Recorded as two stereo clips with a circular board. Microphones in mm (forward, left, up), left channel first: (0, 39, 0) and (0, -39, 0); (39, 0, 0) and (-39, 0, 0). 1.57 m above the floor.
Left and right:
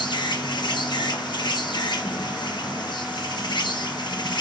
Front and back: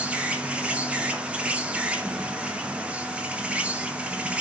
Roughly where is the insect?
Left.